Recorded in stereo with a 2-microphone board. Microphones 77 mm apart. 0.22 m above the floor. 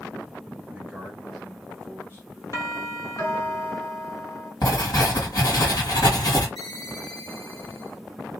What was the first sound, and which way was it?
A man speaking, 20° right (ahead or behind).